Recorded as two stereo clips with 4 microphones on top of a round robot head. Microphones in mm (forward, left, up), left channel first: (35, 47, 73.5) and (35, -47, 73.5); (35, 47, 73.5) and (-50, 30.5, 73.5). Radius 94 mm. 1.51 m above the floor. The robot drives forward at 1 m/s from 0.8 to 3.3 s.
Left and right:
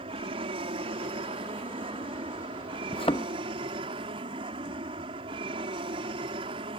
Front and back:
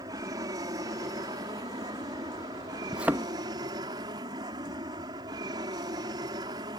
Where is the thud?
110° left; by 3.3 s 145° left.